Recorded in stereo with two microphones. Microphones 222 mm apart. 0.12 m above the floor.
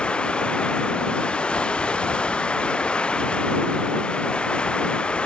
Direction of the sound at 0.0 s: 5° left (ahead or behind).